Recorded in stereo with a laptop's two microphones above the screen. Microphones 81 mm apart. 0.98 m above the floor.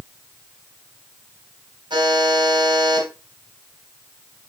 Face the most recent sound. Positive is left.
turn(degrees=-60)  # may be behind; listen again after turning